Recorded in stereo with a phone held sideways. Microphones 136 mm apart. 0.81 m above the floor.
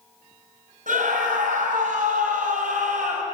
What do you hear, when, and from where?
0.9 s a scream: 80° right, 6 m; by 3.2 s 75° right (ahead or behind), 4.5 m